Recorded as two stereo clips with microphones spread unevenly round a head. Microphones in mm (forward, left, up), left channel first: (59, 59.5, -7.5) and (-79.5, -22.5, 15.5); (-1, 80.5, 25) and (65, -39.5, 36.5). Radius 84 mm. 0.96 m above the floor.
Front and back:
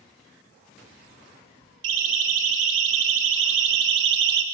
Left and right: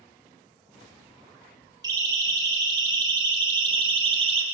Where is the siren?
130° right, 3.5 m; by 4.4 s 115° right, 1.8 m.